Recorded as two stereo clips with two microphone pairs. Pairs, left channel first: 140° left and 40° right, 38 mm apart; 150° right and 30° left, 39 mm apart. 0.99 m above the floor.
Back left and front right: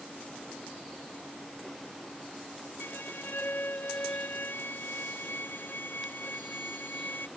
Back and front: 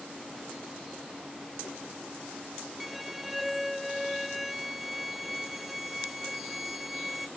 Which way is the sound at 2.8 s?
120° left.